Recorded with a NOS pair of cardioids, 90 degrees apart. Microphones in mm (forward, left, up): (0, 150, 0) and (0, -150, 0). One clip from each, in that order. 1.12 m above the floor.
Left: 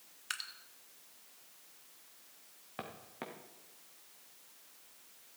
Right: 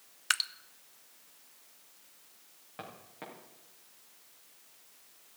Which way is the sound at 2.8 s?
35° left.